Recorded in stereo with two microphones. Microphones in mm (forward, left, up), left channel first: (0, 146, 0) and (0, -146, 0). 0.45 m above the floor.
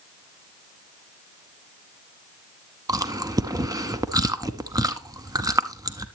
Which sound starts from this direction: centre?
Chewing, at 2.9 s.